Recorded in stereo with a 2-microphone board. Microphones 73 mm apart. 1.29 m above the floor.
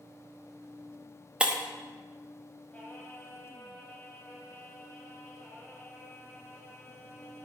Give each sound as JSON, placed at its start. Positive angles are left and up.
{"t": 1.4, "sound": "breaking glass", "side_deg": -15, "distance_m": 0.7}
{"t": 2.7, "sound": "singing", "side_deg": 20, "distance_m": 2.5}